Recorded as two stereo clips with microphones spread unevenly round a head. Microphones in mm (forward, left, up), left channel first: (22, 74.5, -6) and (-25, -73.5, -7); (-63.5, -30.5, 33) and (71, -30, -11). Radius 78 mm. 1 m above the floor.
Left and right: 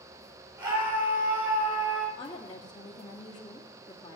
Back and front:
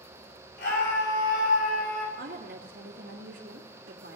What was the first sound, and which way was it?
A scream, 175° right.